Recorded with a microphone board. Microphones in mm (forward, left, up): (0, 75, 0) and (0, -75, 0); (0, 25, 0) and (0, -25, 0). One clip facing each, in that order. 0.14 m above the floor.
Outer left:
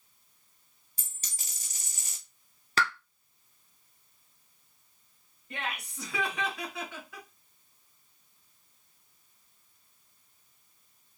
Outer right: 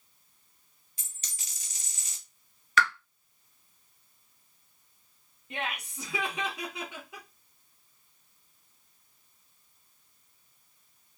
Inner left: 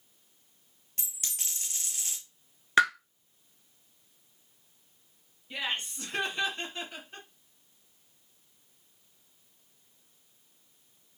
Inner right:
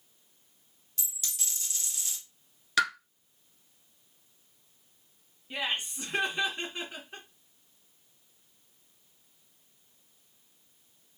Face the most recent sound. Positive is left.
turn(degrees=-20)  # may be behind; listen again after turning